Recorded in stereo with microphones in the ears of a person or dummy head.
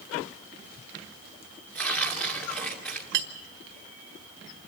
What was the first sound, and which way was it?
Tearing paper, 5° left (ahead or behind).